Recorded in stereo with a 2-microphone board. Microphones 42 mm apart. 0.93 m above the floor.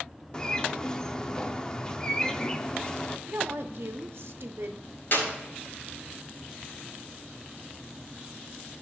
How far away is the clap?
About 4 m.